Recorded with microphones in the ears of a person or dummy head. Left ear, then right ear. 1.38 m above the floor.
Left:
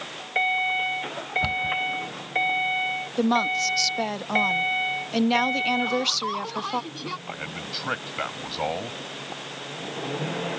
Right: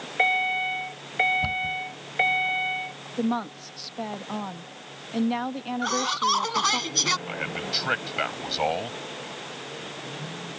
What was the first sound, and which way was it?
A cupboard door, 20° left (ahead or behind).